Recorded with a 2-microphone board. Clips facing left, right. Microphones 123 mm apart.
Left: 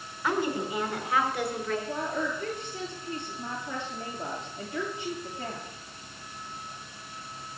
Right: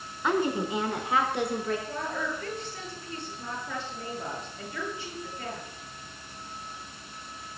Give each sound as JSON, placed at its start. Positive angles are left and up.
{"t": 0.2, "sound": "a woman speaking", "side_deg": -20, "distance_m": 4.5}
{"t": 1.9, "sound": "a woman speaking", "side_deg": 20, "distance_m": 7.0}